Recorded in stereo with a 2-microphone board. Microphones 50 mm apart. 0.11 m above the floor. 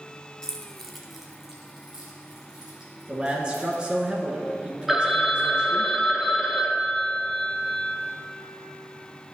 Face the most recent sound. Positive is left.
turn(degrees=0)  # may be behind; listen again after turning